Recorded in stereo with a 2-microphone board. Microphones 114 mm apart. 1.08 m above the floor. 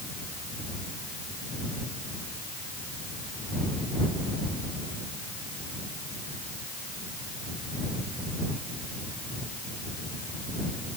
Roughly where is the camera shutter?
I don't hear a camera shutter.